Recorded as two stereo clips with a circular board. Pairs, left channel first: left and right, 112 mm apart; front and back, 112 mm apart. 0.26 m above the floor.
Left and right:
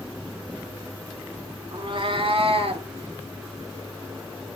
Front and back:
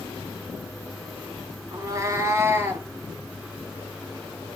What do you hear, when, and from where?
1.7 s a cat meowing: 130° right, 0.7 m; by 2.9 s 110° right, 1.4 m